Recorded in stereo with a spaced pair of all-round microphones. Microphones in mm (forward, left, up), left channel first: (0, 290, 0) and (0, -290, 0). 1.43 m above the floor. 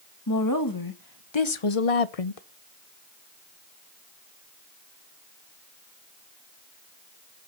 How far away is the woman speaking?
About 1.9 m.